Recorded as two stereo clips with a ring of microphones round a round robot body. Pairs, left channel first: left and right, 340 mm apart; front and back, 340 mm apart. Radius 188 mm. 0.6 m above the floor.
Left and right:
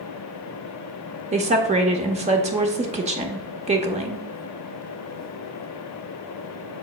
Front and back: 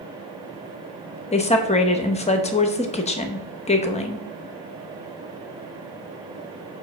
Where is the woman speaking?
45° right, 0.8 m.